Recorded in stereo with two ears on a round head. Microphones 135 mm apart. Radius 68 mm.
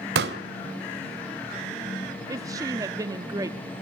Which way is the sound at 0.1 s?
75° right (ahead or behind).